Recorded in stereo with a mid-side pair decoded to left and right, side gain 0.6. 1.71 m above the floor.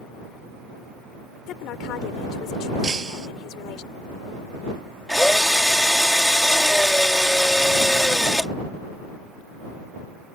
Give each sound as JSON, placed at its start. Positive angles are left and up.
{"t": 1.5, "sound": "a woman speaking", "azimuth_deg": 60}
{"t": 2.8, "sound": "breaking glass", "azimuth_deg": -25}
{"t": 5.1, "sound": "a drill", "azimuth_deg": 5}